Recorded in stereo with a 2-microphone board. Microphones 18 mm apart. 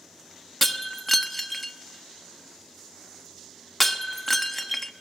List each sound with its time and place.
0.6 s breaking glass: 5° left (ahead or behind), 1.1 m